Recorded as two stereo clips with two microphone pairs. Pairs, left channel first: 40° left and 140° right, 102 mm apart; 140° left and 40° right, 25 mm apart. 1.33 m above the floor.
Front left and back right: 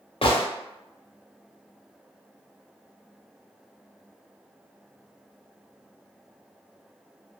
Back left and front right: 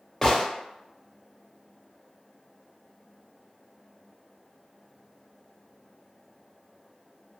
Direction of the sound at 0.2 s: 70° left.